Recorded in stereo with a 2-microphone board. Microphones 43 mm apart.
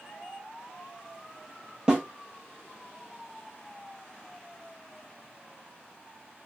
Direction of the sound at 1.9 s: 15° right (ahead or behind).